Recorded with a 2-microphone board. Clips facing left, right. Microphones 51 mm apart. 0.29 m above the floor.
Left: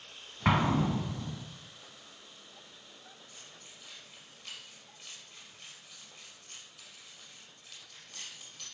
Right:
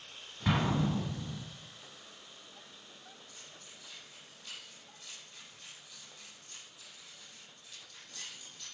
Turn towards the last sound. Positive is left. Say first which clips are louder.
# even
turn(degrees=85)